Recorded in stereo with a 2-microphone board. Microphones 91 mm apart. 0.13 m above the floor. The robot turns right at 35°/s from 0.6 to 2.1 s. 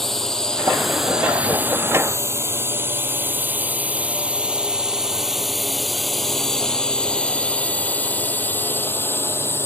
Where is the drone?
5° left (ahead or behind); by 9.7 s 30° left (ahead or behind).